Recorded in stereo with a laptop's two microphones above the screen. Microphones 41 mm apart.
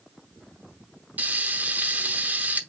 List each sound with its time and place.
1.2 s frying: 45° right (ahead or behind), 0.9 m